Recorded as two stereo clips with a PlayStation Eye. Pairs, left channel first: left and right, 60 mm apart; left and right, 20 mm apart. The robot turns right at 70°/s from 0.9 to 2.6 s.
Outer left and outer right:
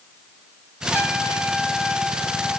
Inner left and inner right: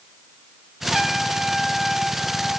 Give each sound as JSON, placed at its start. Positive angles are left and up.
{"t": 0.9, "sound": "a trumpet", "azimuth_deg": -40, "distance_m": 7.0}